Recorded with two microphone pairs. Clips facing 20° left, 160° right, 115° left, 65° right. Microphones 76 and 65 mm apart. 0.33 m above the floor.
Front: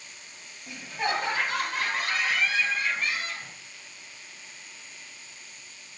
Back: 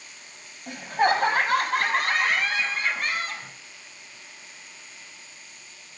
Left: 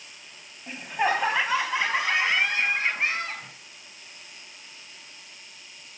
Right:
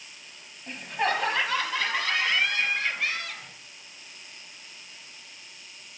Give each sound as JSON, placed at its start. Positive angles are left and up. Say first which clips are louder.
{"t": 0.7, "sound": "laughter", "louder": "back 8 dB, left 2 dB", "azimuth_deg": -165, "distance_m": 2.5}